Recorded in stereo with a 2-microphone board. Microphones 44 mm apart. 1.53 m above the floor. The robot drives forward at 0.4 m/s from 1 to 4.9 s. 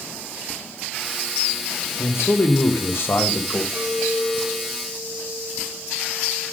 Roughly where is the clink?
Centre.